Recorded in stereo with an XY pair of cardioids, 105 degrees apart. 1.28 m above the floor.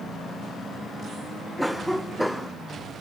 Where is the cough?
Straight ahead, 0.8 m.